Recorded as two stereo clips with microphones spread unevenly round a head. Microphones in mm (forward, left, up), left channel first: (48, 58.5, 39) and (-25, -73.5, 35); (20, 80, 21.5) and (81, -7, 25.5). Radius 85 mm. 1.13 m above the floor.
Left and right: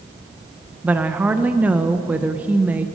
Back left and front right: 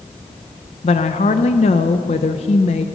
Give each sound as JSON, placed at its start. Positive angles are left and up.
{"t": 0.8, "sound": "a woman speaking", "azimuth_deg": 160, "distance_m": 0.5}